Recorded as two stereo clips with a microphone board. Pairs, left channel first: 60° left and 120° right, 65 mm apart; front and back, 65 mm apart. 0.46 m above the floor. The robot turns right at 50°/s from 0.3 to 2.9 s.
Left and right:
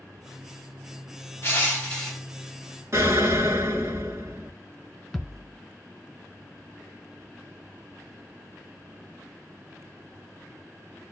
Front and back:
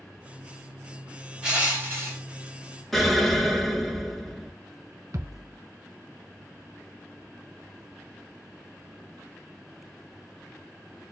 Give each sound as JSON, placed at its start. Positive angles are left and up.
{"t": 1.4, "sound": "crushing", "azimuth_deg": 110, "distance_m": 2.0}
{"t": 2.9, "sound": "an explosion", "azimuth_deg": -85, "distance_m": 1.4}
{"t": 5.1, "sound": "a thud", "azimuth_deg": 150, "distance_m": 1.0}